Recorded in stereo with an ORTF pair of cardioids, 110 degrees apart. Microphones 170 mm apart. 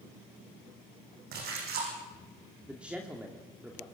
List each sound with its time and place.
1.3 s a splash: 70° right, 8 m
2.7 s a man speaking: 5° right, 2.5 m